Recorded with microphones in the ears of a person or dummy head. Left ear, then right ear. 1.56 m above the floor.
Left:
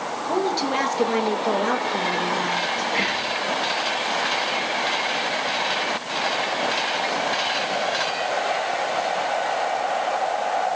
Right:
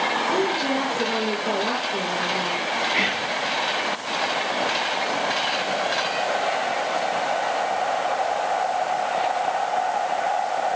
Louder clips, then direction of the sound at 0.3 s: Right 1 dB; 40° left (ahead or behind).